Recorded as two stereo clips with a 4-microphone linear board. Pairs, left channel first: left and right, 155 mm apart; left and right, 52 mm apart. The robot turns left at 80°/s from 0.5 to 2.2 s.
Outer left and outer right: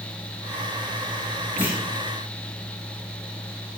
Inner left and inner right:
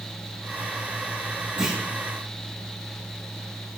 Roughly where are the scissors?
I don't hear scissors.